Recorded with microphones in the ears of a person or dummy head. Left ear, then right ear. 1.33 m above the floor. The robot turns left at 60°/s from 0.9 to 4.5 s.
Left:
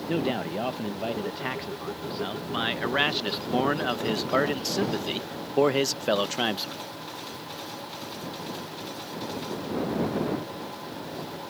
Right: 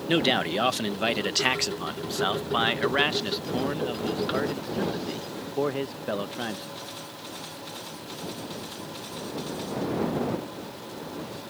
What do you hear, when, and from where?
0.1 s a man speaking: 50° right; by 6.8 s 95° left